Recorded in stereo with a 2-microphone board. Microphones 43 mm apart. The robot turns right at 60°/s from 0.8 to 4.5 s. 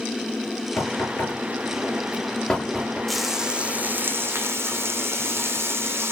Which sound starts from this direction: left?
Knocking, at 0.8 s.